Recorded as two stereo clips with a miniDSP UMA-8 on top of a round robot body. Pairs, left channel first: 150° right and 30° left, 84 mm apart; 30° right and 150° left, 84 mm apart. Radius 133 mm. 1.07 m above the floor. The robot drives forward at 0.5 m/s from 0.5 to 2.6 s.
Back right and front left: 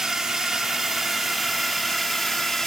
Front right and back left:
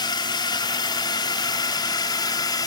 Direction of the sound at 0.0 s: 55° right.